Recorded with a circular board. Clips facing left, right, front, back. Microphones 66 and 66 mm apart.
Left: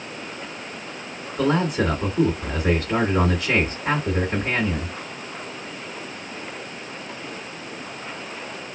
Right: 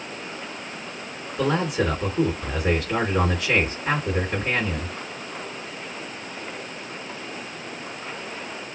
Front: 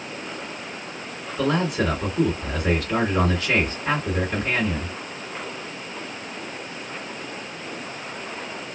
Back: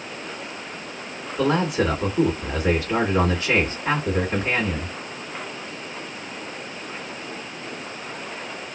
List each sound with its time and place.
1.4 s a man speaking: 130° left, 2.0 m